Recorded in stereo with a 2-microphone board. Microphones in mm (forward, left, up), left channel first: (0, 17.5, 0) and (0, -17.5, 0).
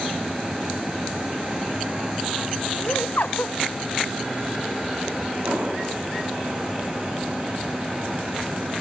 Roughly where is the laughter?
Left.